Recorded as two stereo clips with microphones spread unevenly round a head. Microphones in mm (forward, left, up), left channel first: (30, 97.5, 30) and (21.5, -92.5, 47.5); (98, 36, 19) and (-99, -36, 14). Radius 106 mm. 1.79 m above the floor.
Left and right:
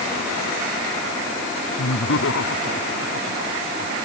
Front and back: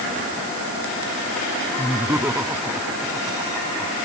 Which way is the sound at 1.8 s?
120° left.